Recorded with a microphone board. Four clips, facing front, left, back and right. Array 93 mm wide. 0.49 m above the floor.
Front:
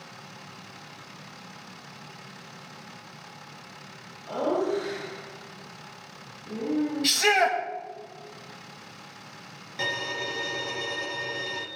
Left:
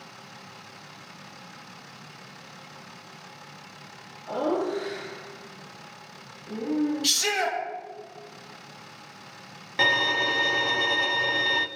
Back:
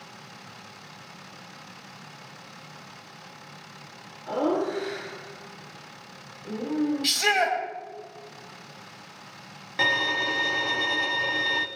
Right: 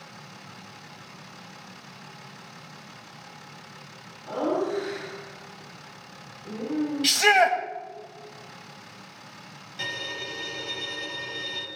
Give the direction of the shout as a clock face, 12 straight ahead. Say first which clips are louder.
Right 8 dB, front 1 dB; 3 o'clock.